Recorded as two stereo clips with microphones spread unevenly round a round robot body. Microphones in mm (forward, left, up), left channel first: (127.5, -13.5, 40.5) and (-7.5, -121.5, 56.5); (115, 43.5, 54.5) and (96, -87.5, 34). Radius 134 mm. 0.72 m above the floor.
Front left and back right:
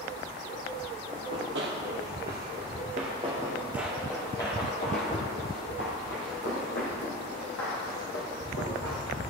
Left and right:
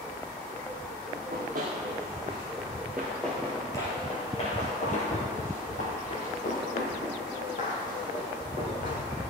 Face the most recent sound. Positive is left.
turn(degrees=70)